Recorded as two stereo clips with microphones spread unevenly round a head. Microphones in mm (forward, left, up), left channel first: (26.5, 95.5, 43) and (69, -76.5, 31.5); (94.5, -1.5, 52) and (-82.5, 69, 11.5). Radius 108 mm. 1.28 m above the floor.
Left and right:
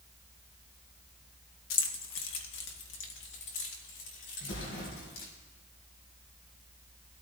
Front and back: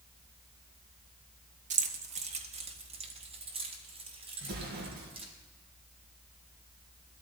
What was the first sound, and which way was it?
Keys jangling, 105° left.